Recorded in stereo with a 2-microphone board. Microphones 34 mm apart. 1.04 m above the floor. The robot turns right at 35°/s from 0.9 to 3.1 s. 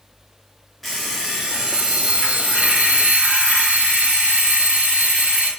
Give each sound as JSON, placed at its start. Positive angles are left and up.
{"t": 0.8, "sound": "an alarm clock", "azimuth_deg": 175, "distance_m": 1.1}